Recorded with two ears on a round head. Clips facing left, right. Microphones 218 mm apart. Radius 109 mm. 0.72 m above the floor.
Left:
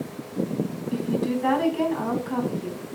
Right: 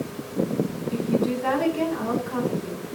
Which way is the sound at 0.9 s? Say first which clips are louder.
Right 1 dB; 55° left (ahead or behind).